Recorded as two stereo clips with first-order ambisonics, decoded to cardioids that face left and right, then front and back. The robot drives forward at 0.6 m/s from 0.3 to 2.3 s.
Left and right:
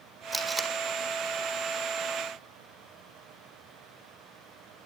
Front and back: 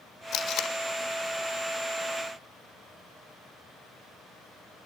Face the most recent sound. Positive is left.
turn(degrees=-130)